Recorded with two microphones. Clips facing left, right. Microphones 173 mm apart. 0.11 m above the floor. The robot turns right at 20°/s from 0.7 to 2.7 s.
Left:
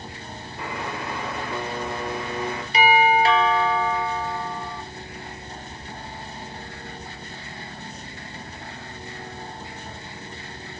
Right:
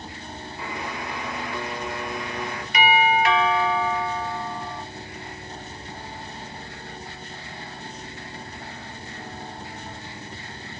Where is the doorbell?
30° left (ahead or behind), 3.5 m.